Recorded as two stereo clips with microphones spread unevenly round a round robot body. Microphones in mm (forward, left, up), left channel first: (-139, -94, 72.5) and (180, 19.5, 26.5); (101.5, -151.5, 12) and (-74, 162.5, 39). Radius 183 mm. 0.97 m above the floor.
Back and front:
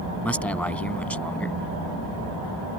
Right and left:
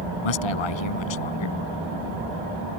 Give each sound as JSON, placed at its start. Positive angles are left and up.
{"t": 0.2, "sound": "a man speaking", "azimuth_deg": -75}